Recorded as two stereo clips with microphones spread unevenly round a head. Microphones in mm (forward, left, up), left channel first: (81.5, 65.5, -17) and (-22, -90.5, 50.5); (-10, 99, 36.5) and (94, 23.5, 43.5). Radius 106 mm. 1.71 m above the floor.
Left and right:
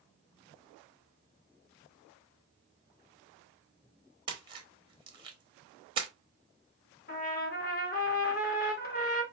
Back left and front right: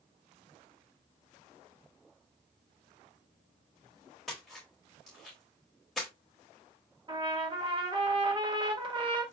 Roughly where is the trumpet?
Ahead.